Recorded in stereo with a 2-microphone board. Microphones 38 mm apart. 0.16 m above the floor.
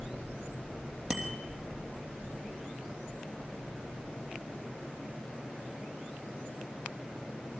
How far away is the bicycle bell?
About 3 m.